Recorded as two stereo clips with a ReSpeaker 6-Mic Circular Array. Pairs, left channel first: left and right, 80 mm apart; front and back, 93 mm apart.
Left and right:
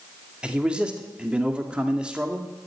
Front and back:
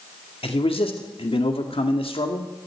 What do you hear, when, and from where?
0.4 s a man speaking: 10° right, 1.8 m